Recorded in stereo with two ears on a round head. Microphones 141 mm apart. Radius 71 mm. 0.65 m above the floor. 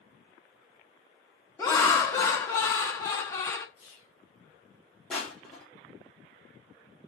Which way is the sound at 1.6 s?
20° left (ahead or behind).